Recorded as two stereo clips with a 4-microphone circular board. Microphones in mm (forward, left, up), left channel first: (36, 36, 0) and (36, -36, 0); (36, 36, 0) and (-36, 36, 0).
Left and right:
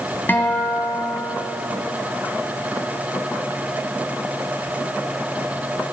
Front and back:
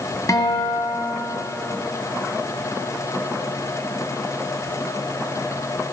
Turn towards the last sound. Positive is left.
turn(degrees=30)